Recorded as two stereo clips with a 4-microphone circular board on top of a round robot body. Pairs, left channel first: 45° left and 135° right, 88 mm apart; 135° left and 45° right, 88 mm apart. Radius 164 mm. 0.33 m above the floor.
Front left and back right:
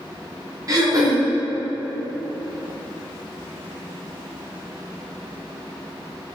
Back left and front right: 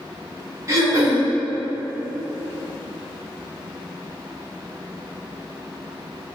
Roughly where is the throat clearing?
Right.